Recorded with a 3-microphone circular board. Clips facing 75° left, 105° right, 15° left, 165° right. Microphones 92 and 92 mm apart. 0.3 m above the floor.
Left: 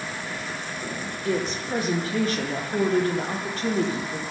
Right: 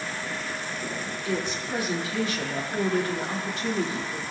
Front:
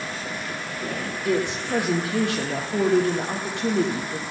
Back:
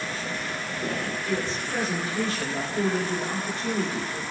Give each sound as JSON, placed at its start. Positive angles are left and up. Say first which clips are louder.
{"t": 1.2, "sound": "a woman speaking", "louder": "left 4 dB, front 8 dB", "azimuth_deg": 30, "distance_m": 9.5}